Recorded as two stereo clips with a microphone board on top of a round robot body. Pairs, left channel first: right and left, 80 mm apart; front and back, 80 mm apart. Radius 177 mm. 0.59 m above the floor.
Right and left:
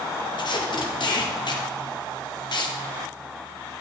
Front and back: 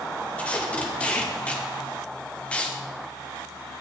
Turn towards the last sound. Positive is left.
turn(degrees=-75)